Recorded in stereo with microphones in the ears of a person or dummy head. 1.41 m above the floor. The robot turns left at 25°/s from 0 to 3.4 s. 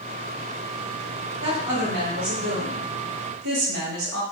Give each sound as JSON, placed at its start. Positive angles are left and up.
{"t": 1.4, "sound": "a woman speaking", "azimuth_deg": -40, "distance_m": 1.3}